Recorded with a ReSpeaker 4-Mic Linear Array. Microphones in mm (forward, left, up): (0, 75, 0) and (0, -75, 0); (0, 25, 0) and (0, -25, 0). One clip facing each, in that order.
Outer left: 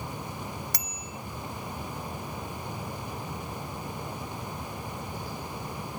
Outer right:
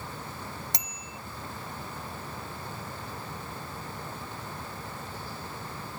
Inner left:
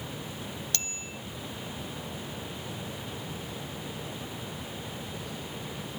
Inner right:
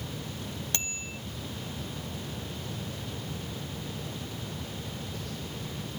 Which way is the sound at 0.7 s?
20° right (ahead or behind).